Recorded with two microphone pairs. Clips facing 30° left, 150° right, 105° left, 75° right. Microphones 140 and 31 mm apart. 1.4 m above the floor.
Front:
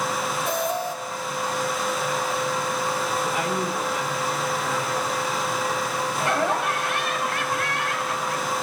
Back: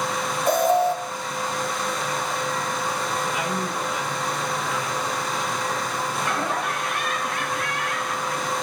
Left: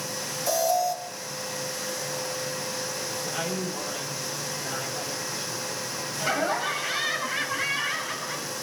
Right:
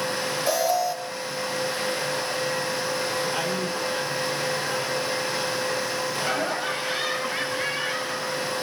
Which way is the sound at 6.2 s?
15° left.